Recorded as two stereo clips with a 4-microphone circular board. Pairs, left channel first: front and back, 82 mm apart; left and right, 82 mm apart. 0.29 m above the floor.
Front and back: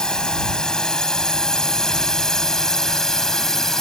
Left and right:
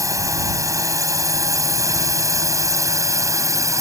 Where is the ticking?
I don't hear ticking.